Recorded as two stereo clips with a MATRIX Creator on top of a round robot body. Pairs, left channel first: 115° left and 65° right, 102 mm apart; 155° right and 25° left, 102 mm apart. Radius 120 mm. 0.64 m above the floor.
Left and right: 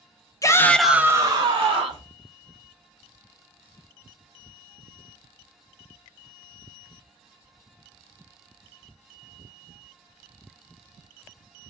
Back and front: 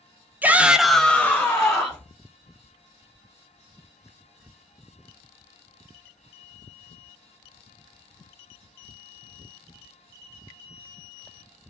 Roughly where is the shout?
Left.